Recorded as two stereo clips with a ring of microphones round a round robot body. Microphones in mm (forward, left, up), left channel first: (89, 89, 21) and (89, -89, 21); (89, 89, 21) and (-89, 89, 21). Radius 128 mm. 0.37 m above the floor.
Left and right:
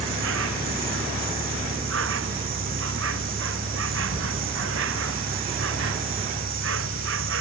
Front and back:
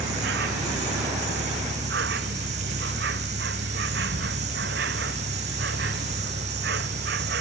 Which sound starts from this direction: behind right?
An insect, at 0.0 s.